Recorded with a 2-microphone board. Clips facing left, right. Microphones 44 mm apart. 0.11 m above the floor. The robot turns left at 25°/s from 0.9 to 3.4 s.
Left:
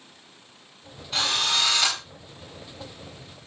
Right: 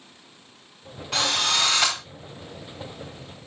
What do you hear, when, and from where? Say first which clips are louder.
1.1 s a drill: right 1 dB; 60° right (ahead or behind), 9 m; by 2.0 s 40° right (ahead or behind), 9 m